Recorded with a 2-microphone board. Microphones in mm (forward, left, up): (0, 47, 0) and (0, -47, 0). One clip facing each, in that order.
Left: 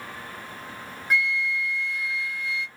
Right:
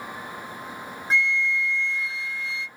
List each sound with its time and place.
1.1 s a flute: 25° right (ahead or behind), 0.8 m